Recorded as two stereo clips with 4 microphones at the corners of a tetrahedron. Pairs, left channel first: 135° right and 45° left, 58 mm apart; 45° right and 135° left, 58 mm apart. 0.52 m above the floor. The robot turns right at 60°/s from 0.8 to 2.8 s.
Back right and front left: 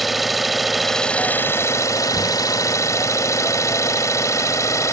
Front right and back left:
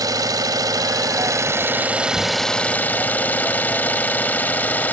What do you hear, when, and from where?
0.0 s an engine running: 135° left, 1.2 m; by 4.9 s 105° right, 1.2 m